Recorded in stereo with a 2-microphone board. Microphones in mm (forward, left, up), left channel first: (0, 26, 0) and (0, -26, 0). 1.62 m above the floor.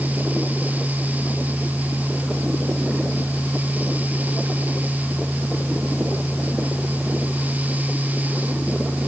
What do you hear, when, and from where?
Only background noise.